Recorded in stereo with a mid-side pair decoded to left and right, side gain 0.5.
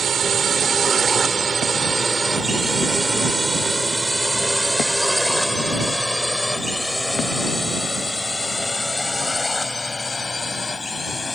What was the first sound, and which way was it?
A drone, 40° right.